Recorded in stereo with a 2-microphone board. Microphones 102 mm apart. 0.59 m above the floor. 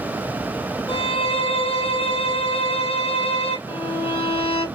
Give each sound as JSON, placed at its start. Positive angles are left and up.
{"t": 0.9, "sound": "a violin", "side_deg": 80, "distance_m": 3.5}
{"t": 3.7, "sound": "a violin", "side_deg": 85, "distance_m": 2.5}